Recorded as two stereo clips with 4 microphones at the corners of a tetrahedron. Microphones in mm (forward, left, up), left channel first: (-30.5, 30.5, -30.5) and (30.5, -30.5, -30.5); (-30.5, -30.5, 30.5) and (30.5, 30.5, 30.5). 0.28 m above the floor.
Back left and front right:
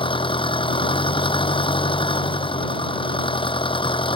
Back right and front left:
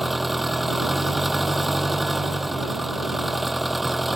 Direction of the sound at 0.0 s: 135° left.